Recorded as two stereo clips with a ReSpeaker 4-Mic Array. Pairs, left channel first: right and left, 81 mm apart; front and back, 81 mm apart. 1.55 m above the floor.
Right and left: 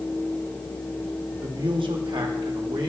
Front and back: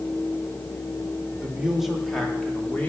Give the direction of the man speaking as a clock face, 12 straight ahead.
8 o'clock.